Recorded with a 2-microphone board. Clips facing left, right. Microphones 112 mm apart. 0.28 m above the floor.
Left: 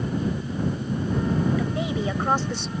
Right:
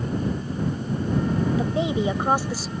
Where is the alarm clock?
I don't hear an alarm clock.